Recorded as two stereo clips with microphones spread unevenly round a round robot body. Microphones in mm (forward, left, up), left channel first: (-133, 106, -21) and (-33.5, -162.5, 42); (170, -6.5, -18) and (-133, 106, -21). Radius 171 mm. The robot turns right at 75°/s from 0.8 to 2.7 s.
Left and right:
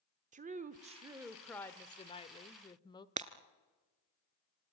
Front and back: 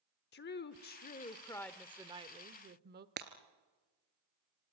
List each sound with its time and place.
0.3 s a woman speaking: 5° right, 0.9 m; by 3.1 s 140° left, 0.9 m
3.2 s breaking glass: 135° right, 1.3 m